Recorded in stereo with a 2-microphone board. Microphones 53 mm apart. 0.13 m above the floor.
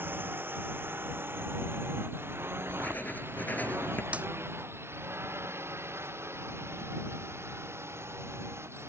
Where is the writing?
35° left (ahead or behind).